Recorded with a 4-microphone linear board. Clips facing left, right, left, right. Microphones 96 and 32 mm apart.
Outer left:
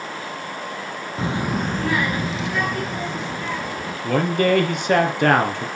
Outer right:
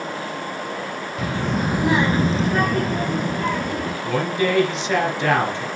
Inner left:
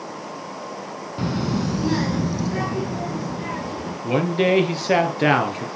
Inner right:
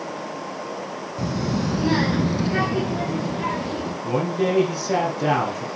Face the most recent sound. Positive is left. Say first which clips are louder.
# outer left 4 dB, inner left 4 dB
turn(degrees=55)  # may be behind; listen again after turning